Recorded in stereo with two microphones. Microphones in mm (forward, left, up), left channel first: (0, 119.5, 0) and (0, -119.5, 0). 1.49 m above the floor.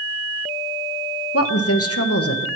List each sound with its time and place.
1.3 s a woman speaking: 75° left (ahead or behind), 0.9 m